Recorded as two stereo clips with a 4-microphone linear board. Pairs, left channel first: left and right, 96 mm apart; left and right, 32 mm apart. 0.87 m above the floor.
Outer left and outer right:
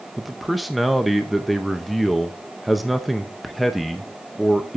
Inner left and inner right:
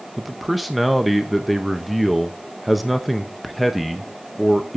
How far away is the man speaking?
About 0.7 m.